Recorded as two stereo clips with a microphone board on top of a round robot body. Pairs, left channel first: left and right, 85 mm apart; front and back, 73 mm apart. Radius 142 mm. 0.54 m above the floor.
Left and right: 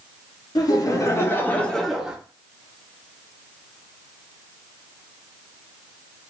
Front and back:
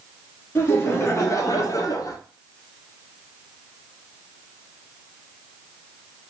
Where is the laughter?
55° left, 1.3 m; by 2.2 s 15° right, 1.0 m.